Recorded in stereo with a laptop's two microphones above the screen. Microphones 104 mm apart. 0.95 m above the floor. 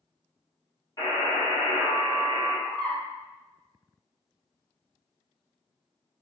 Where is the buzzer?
35° left (ahead or behind), 1.2 m.